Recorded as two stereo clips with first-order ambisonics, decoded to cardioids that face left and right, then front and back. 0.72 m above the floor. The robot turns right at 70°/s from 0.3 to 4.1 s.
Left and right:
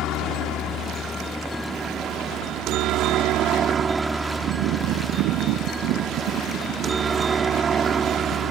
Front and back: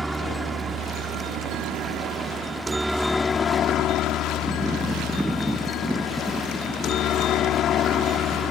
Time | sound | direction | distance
0.0 | a helicopter | 100° left | ?